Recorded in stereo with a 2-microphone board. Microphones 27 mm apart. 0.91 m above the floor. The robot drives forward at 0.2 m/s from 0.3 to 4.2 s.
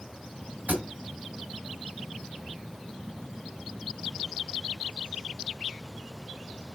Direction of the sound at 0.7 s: 75° right (ahead or behind).